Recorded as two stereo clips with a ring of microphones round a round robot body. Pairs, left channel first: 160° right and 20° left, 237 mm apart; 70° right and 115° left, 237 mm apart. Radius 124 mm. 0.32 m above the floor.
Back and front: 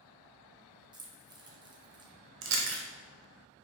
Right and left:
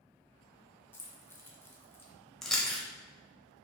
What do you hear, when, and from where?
0.9 s keys jangling: 5° right, 0.6 m
2.4 s chewing: 20° left, 0.6 m